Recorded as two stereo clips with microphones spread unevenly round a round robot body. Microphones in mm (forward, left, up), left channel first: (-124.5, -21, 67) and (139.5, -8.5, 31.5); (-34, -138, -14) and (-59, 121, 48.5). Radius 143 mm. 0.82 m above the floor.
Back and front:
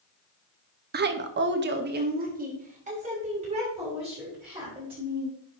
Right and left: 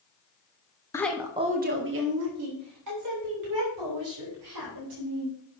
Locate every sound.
0.9 s a woman speaking: 25° right, 0.9 m; by 5.3 s 75° left, 4.5 m